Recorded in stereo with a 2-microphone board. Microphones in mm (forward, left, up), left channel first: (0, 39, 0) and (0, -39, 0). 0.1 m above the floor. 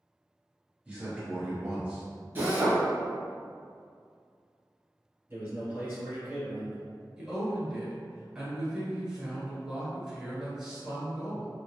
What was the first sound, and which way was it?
A man speaking, 20° right (ahead or behind).